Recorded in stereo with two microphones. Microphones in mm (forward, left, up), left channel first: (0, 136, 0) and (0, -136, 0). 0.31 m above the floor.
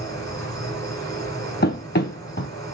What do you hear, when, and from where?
0.0 s an insect: 10° left (ahead or behind), 1.7 m
1.6 s running footsteps: 40° left (ahead or behind), 0.6 m